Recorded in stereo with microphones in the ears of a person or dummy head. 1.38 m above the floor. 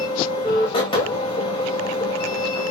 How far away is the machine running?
About 2 m.